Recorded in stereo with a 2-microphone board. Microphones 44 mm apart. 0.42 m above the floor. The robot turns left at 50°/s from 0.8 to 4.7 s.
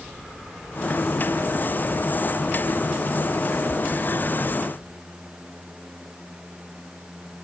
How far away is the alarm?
No alarm in this recording.